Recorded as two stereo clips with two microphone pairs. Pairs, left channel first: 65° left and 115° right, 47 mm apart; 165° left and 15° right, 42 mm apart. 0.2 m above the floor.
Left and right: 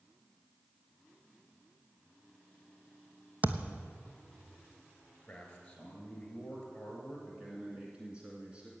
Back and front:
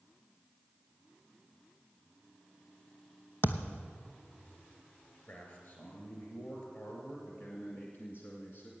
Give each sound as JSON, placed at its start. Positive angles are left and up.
{"t": 3.4, "sound": "a thud", "azimuth_deg": -170, "distance_m": 0.8}
{"t": 5.3, "sound": "a man speaking", "azimuth_deg": 130, "distance_m": 4.5}
{"t": 7.3, "sound": "a man speaking", "azimuth_deg": 180, "distance_m": 1.8}